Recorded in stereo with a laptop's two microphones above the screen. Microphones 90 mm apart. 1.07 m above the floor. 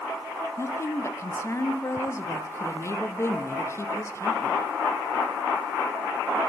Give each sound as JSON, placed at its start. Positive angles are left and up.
{"t": 0.6, "sound": "a woman speaking", "side_deg": 30, "distance_m": 0.5}